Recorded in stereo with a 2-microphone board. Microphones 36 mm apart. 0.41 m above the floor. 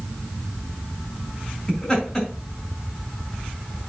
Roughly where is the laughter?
Centre.